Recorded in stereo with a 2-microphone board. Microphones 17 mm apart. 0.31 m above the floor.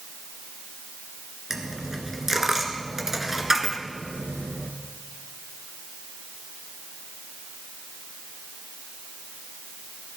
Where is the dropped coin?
20° right (ahead or behind), 1.6 m.